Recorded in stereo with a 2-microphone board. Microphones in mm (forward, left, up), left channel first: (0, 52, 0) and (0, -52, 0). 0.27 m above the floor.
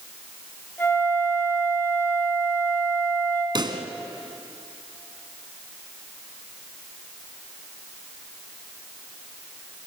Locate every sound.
0.8 s a flute: 20° left (ahead or behind), 3.5 m
3.5 s a pop: 45° right (ahead or behind), 1.9 m